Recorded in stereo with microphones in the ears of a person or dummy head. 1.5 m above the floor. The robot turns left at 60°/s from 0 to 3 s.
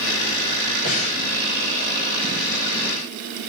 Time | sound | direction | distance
0.8 | breathing | 50° left (ahead or behind) | 6.5 m